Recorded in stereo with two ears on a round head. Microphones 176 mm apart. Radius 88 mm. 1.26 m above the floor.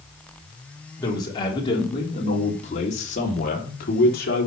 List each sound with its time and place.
1.0 s a man speaking: 20° left (ahead or behind), 4 m; by 4.5 s 55° left (ahead or behind), 3.5 m